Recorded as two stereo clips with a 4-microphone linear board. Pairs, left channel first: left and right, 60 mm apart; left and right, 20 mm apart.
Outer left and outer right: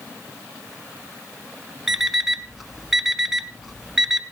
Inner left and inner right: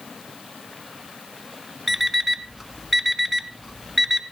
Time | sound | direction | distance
1.9 | an alarm clock | 5° right (ahead or behind) | 0.9 m